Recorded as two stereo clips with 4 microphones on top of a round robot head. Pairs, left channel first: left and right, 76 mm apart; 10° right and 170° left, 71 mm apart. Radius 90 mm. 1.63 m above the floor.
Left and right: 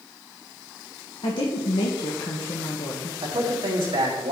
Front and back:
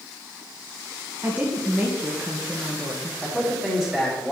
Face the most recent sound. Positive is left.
turn(degrees=-110)